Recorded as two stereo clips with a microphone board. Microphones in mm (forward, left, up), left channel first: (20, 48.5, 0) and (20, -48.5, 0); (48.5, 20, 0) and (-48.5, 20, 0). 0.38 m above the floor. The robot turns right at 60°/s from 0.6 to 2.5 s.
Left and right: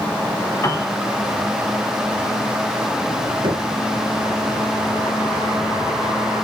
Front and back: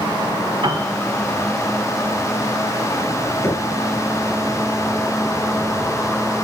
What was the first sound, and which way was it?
A piano, 150° left.